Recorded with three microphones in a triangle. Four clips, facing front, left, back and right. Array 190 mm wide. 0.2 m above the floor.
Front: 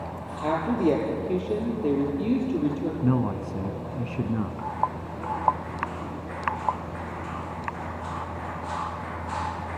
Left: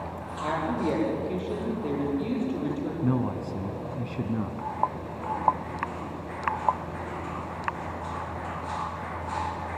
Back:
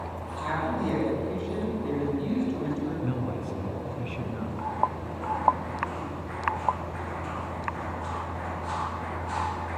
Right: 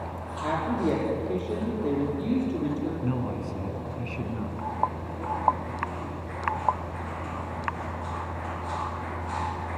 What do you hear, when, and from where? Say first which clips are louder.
0.4 s a woman speaking: right 1 dB, front 6 dB; 15° right, 6 m
3.0 s a man speaking: left 3 dB, front 6 dB; 20° left, 1.7 m